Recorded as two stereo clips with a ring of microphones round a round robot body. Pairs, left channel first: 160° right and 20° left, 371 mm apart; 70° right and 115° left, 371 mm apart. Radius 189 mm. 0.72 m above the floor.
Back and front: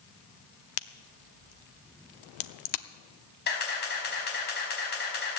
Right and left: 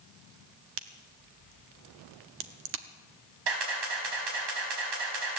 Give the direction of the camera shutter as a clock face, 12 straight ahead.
7 o'clock.